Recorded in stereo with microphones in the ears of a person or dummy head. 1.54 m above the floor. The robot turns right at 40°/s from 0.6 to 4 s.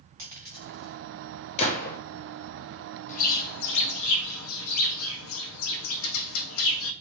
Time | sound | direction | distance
0.2 | a dropped coin | 15° right (ahead or behind) | 1.5 m
1.6 | a gunshot | 40° left (ahead or behind) | 0.8 m
3.1 | a bird | 45° left | 0.6 m